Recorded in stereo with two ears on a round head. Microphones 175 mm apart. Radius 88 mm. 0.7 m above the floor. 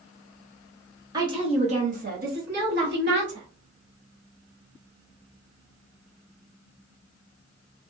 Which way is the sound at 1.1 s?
20° right (ahead or behind).